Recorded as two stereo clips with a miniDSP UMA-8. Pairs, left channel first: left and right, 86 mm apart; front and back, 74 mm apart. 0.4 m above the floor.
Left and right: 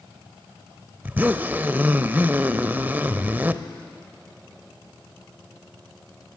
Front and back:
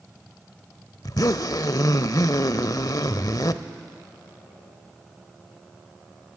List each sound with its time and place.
1.0 s a zipper: 25° right, 0.7 m